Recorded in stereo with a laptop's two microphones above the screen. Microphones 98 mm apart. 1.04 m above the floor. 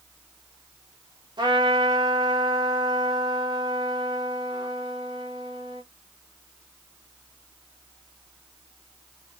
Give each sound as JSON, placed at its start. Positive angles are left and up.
{"t": 1.4, "sound": "a trumpet", "side_deg": -50, "distance_m": 1.0}